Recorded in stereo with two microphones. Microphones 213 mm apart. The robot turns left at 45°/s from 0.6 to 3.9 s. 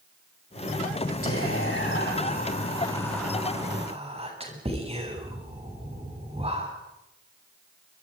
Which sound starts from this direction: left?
Whispering, at 1.2 s.